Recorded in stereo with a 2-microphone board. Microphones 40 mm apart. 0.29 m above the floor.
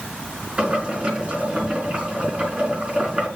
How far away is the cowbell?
I don't hear a cowbell.